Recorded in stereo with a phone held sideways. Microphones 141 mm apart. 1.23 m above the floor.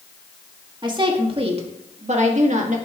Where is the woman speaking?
35° right (ahead or behind), 1.9 m; by 2.8 s 65° right (ahead or behind), 2.0 m.